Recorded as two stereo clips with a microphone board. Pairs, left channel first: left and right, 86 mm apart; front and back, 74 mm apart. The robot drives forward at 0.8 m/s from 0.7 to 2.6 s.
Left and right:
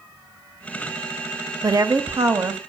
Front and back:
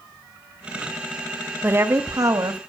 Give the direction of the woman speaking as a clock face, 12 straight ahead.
4 o'clock.